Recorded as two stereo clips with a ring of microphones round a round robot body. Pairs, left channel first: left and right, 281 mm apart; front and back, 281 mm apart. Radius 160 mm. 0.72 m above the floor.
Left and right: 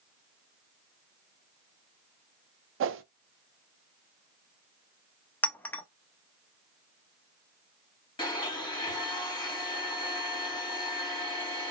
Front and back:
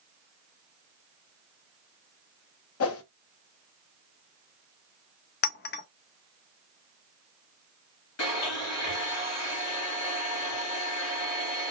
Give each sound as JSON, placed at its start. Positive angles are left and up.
{"t": 2.8, "sound": "a whoosh", "azimuth_deg": -45, "distance_m": 0.5}
{"t": 5.4, "sound": "a clink", "azimuth_deg": 10, "distance_m": 0.6}
{"t": 8.2, "sound": "a blender", "azimuth_deg": 20, "distance_m": 1.8}